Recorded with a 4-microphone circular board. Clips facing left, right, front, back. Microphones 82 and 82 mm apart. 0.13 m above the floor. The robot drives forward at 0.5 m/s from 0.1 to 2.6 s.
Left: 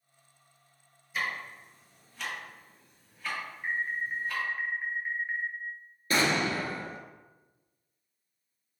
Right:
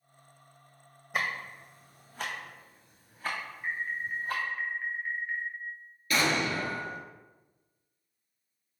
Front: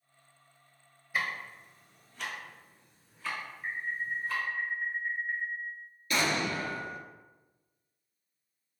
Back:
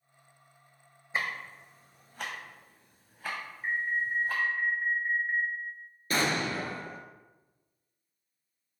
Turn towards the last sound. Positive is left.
turn(degrees=140)